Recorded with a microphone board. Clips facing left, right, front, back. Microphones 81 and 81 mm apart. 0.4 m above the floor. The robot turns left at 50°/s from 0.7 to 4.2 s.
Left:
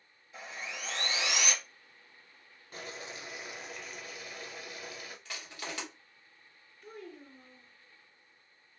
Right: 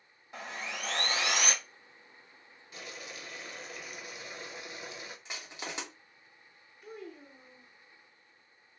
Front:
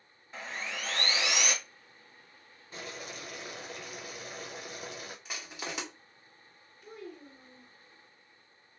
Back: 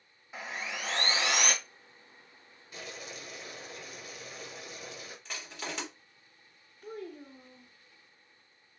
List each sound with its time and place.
0.3 s sawing: 100° right, 0.6 m; by 1.5 s 145° right, 0.6 m
2.7 s boiling: 50° left, 0.7 m; by 5.2 s 25° right, 0.7 m
5.2 s crushing: 60° right, 1.1 m
6.8 s a child speaking: 175° right, 0.7 m